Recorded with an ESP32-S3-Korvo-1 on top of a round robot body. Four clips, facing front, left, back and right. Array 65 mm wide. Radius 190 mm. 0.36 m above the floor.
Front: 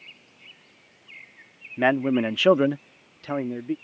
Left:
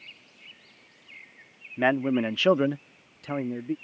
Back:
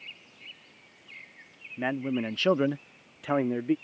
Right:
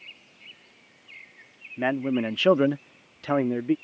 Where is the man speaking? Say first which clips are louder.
Left 2 dB, front 8 dB; 35° left; by 3.8 s 120° right.